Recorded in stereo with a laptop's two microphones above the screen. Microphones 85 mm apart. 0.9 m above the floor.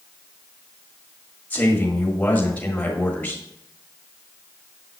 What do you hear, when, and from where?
1.5 s a man speaking: 20° left (ahead or behind), 1.7 m